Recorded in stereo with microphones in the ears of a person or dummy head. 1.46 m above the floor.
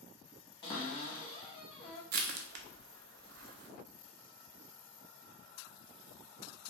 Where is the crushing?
55° right (ahead or behind), 0.6 m.